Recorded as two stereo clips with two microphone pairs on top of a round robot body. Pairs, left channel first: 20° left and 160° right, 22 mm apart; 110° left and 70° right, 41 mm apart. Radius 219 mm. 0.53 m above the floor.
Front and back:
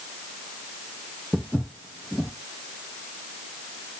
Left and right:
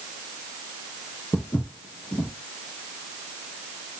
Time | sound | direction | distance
1.3 | footsteps | 110° left | 0.8 m